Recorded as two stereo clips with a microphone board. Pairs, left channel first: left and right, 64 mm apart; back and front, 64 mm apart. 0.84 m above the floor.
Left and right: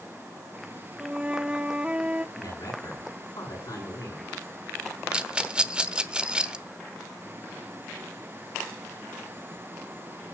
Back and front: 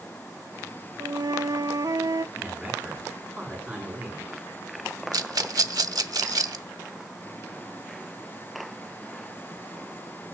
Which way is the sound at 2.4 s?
70° left.